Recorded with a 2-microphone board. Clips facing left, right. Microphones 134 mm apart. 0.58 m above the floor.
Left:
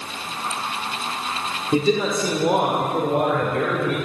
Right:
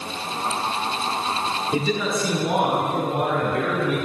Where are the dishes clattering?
No dishes clattering in this recording.